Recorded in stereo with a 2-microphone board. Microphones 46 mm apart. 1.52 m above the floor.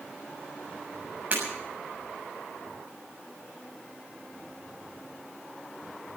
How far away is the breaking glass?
About 6.5 m.